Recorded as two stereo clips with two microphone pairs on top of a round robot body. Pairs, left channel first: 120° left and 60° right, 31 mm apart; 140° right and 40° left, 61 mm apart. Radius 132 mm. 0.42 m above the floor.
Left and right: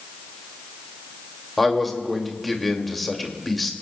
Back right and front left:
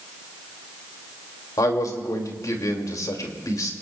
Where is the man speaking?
160° right, 2.5 m.